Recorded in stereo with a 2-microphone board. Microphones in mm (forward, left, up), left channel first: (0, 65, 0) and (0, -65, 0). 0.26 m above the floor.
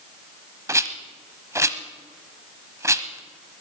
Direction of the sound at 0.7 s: 25° right (ahead or behind).